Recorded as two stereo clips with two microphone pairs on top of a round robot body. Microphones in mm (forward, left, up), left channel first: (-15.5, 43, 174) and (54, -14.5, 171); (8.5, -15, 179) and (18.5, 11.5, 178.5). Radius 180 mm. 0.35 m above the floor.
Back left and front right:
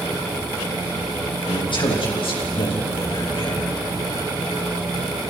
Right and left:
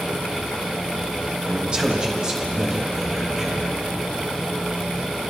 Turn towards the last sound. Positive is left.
turn(degrees=135)